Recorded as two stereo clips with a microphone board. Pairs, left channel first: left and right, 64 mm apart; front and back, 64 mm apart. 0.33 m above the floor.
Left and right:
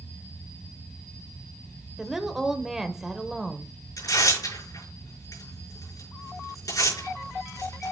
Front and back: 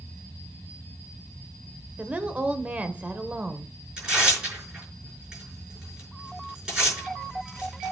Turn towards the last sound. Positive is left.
turn(degrees=100)